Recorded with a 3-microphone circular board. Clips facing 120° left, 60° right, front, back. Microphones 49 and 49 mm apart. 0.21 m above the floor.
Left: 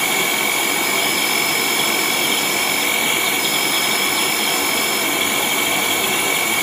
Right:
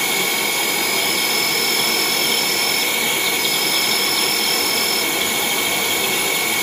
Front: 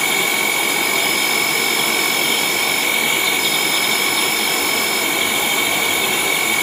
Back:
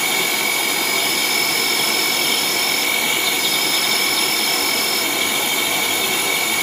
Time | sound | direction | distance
0.0 | an insect | 70° left | 1.6 m